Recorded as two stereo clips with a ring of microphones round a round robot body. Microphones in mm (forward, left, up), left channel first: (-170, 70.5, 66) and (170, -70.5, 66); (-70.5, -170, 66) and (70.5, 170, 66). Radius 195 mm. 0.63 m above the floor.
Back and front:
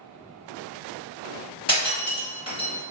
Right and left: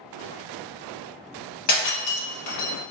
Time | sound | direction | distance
1.7 | breaking glass | 125° right | 1.4 m